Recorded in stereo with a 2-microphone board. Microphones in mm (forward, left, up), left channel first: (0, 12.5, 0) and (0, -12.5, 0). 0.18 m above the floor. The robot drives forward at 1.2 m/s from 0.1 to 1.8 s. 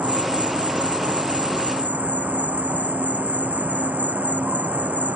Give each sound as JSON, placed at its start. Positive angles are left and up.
{"t": 0.0, "sound": "an insect", "side_deg": -75}